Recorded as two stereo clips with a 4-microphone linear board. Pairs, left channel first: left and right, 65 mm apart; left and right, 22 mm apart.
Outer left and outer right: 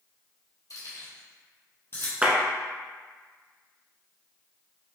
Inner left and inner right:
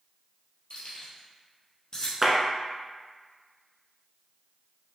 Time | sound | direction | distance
0.7 | keys jangling | 60° left (ahead or behind) | 1.9 m
2.2 | a clap | 20° right (ahead or behind) | 1.0 m